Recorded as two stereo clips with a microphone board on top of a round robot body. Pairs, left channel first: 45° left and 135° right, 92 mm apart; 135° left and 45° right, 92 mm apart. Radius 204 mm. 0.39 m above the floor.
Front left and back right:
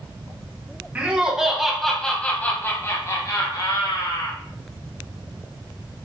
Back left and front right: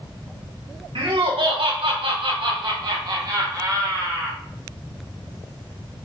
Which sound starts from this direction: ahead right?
Laughter, at 0.9 s.